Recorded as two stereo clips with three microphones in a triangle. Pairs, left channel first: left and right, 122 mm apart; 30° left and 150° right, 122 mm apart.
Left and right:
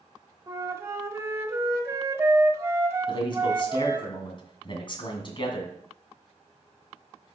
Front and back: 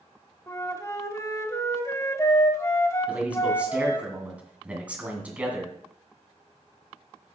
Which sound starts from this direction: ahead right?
A flute, at 0.5 s.